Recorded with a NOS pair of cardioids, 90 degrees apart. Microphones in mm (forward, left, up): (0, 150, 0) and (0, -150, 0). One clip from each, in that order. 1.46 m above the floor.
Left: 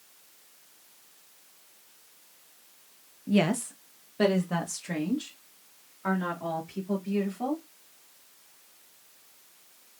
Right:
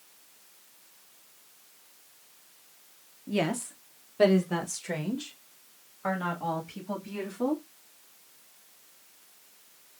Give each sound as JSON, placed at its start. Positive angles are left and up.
{"t": 3.3, "sound": "a woman speaking", "azimuth_deg": 15, "distance_m": 0.7}